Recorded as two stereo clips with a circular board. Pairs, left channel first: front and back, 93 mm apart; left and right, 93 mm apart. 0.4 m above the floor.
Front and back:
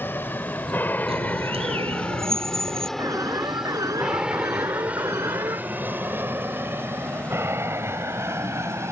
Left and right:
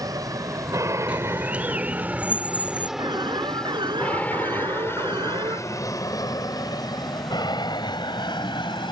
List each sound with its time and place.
0.0 s an aircraft: 60° right; by 8.9 s 120° left
1.1 s a bird: 165° right
3.0 s an alarm: 125° right